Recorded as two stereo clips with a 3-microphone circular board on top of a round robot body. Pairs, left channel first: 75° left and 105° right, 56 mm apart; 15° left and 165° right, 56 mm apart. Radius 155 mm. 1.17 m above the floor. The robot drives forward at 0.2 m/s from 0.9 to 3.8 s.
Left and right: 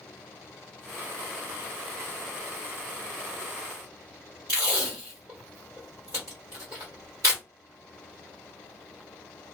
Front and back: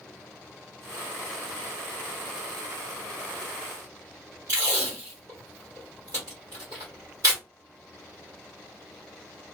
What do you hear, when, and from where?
4.5 s tape being pulled: 140° right, 1.1 m